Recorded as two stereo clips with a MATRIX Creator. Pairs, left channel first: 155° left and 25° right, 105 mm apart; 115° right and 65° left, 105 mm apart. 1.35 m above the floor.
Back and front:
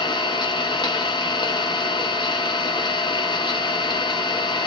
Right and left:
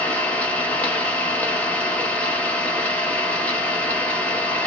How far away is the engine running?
About 0.8 m.